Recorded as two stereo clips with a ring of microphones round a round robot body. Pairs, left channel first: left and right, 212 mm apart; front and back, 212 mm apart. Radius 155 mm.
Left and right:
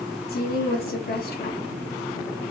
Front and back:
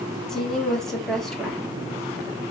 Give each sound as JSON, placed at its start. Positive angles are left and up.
{"t": 0.3, "sound": "a woman speaking", "azimuth_deg": 85, "distance_m": 1.2}